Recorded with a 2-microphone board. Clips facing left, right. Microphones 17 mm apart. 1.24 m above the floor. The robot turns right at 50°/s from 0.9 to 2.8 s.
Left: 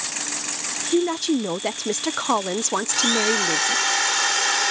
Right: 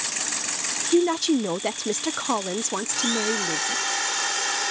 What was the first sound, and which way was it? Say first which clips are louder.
A woman speaking: right 1 dB; 15° right (ahead or behind).